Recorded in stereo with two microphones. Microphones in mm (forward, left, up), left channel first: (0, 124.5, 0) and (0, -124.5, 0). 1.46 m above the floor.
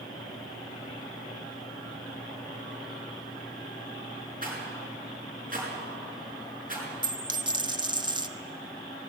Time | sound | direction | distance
4.4 | a rattle | 35° right (ahead or behind) | 6 m
7.0 | a dropped coin | 20° right (ahead or behind) | 0.8 m